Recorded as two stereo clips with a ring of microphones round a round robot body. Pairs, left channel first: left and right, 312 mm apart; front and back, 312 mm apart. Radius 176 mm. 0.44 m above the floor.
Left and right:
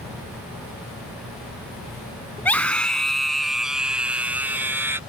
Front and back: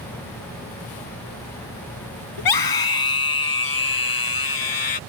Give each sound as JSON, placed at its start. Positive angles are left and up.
{"t": 2.4, "sound": "a scream", "azimuth_deg": 5}